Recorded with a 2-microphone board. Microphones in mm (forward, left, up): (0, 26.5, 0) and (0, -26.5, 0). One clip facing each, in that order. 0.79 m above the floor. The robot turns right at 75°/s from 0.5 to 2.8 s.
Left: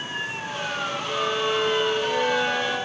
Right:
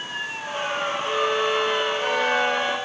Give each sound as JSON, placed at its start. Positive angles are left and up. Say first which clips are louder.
{"t": 1.1, "sound": "a violin", "louder": "right 2 dB", "azimuth_deg": -155, "distance_m": 4.0}